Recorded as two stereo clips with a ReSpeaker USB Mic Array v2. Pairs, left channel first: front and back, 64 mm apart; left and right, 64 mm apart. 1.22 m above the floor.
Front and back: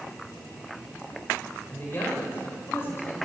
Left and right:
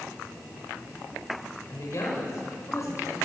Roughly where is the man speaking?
Ahead left.